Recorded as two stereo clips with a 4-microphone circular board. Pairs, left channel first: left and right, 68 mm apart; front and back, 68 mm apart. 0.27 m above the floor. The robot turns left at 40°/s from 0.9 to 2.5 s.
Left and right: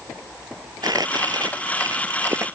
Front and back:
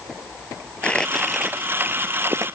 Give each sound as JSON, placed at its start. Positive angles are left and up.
{"t": 0.8, "sound": "crumpling", "azimuth_deg": -75}